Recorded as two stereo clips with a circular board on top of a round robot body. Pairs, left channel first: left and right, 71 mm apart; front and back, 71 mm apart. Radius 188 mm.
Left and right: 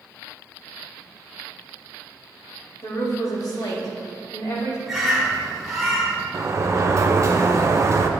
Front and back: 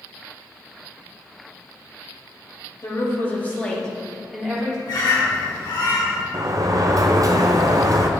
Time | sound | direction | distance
2.8 | a woman speaking | 45° left | 2.5 m
4.9 | a bird | straight ahead | 2.5 m
6.3 | a sliding door | 140° right | 0.6 m